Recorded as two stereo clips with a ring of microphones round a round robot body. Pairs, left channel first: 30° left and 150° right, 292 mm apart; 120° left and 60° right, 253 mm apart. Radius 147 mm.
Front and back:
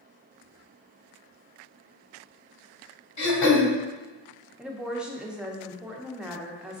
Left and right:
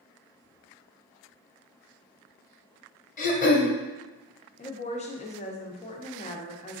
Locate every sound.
3.2 s throat clearing: 60° left, 1.1 m
4.6 s a woman speaking: 125° left, 0.5 m